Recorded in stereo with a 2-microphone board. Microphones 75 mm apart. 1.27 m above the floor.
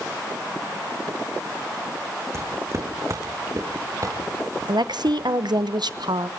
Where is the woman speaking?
75° right (ahead or behind), 0.9 m.